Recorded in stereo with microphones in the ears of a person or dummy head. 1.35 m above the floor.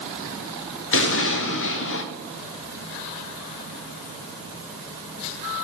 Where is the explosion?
50° left (ahead or behind), 0.7 m.